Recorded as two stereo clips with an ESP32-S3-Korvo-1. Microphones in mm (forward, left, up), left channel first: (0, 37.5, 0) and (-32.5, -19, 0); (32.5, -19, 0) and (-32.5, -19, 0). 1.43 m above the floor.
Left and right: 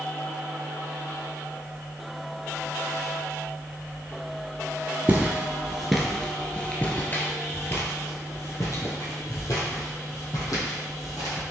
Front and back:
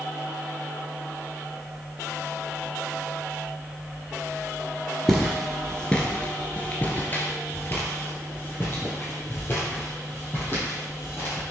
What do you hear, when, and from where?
5.1 s footsteps: 85° right, 1.6 m; by 11.4 s 50° left, 4 m